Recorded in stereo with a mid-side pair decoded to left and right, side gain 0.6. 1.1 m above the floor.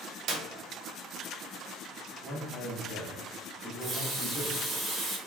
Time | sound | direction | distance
0.3 | a clap | 50° right | 0.7 m
2.2 | a man speaking | 15° right | 1.1 m
3.6 | a running tap | 35° right | 1.0 m